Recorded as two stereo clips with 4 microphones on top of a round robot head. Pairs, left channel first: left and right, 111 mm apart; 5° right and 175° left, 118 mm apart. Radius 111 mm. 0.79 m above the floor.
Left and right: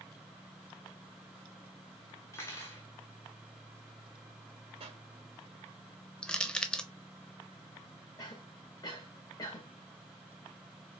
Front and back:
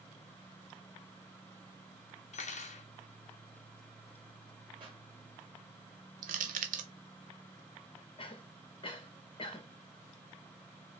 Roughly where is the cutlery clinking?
Ahead.